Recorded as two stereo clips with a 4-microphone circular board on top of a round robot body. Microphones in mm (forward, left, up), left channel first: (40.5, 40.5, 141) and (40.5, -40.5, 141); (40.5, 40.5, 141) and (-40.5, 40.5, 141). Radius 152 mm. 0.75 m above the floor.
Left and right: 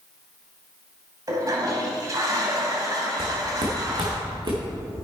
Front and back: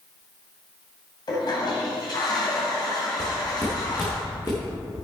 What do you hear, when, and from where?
1.3 s a toilet flushing: 40° right, 2 m
3.2 s footsteps: 75° right, 4 m; by 4.6 s 60° right, 4 m